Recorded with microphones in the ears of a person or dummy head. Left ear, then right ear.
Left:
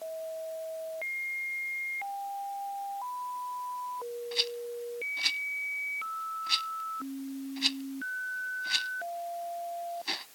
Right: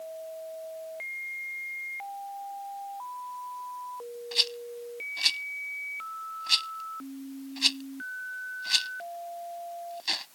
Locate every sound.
4.3 s a rattle: 25° right (ahead or behind)